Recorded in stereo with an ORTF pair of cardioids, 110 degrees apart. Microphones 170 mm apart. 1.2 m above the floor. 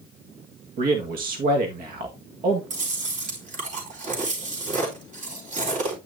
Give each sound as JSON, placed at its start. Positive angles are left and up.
{"t": 0.8, "sound": "a man speaking", "azimuth_deg": -60, "distance_m": 1.8}
{"t": 2.7, "sound": "chewing", "azimuth_deg": -50, "distance_m": 4.0}